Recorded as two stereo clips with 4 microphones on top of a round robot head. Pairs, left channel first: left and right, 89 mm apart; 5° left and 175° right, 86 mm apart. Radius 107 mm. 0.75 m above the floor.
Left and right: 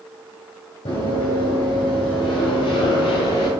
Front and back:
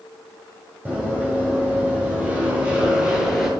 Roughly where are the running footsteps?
Behind left.